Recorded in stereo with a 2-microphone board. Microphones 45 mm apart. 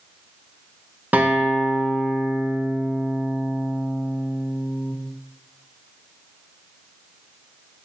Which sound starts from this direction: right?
A guitar, at 1.1 s.